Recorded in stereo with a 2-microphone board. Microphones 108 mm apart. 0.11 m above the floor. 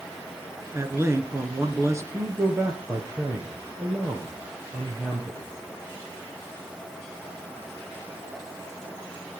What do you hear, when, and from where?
0.7 s a man speaking: 25° right (ahead or behind), 1.3 m
2.1 s a man speaking: 25° right (ahead or behind), 2.5 m